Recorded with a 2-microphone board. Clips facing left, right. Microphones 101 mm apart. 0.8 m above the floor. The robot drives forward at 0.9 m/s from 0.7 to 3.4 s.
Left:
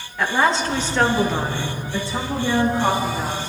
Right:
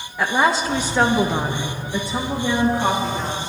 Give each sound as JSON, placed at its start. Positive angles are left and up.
{"t": 0.2, "sound": "a woman speaking", "side_deg": -10, "distance_m": 0.9}